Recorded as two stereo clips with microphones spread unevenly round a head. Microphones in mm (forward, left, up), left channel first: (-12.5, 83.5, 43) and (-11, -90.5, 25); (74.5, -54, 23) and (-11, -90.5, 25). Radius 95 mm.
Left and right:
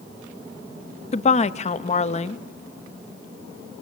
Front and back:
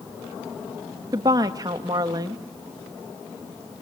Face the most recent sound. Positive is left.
turn(degrees=145)